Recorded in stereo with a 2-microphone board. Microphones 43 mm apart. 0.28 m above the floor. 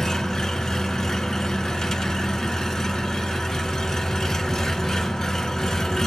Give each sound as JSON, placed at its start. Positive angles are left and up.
{"t": 0.0, "sound": "an engine running", "side_deg": 10, "distance_m": 1.6}